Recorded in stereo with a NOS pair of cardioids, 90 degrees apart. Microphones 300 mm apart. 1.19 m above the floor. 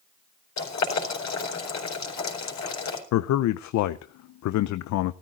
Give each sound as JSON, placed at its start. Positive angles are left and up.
{"t": 0.6, "sound": "boiling", "azimuth_deg": 60, "distance_m": 4.0}
{"t": 3.1, "sound": "a man speaking", "azimuth_deg": 65, "distance_m": 0.6}